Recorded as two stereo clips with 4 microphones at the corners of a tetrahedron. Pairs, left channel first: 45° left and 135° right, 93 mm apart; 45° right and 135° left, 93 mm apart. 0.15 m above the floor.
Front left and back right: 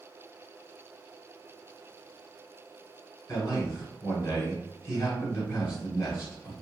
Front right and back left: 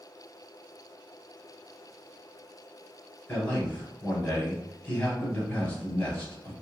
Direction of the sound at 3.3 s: 20° left.